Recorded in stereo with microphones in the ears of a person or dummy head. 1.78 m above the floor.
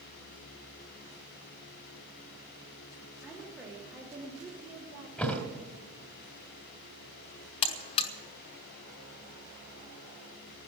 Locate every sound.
3.2 s a woman speaking: 10° right (ahead or behind), 3 m; by 5.1 s 30° right (ahead or behind), 3 m
5.2 s a thud: 5° left (ahead or behind), 1.5 m
7.6 s a buzzer: 30° left (ahead or behind), 0.8 m